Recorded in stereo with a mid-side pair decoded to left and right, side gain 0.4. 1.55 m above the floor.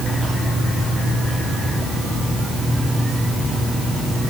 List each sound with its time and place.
Only background noise.